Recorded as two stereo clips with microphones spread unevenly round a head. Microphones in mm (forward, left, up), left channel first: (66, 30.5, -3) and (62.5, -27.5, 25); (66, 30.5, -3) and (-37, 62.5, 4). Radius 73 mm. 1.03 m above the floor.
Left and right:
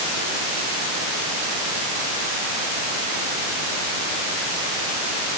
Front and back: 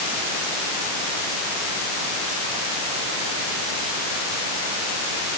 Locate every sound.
Only background noise.